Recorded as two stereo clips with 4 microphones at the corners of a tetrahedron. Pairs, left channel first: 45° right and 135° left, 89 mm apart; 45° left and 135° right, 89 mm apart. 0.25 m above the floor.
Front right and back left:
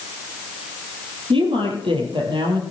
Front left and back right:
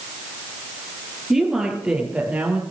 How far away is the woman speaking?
About 5.5 m.